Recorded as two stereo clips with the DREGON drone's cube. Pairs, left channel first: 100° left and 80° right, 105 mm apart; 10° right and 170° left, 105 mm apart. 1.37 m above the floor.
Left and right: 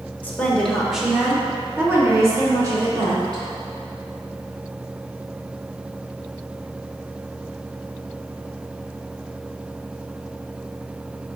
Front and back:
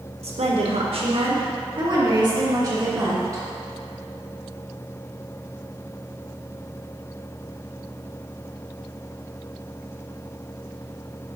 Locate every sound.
0.2 s a woman speaking: 175° left, 1.1 m; by 3.4 s 130° right, 2.5 m